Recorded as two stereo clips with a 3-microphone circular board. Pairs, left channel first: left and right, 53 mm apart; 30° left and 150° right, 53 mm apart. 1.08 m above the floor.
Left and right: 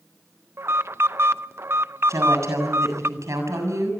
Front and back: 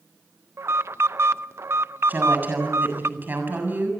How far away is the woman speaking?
About 7 m.